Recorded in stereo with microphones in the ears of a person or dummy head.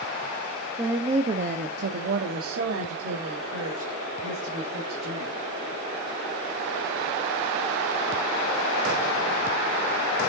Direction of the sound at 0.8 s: 20° right (ahead or behind).